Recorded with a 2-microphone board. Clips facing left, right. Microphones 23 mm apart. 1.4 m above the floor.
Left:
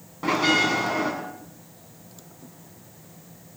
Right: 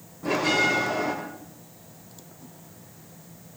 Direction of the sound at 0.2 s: 60° left (ahead or behind).